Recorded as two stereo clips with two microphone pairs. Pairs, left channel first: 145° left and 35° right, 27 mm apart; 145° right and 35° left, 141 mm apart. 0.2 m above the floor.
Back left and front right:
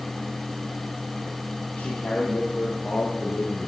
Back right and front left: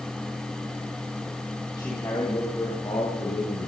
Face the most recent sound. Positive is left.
turn(degrees=170)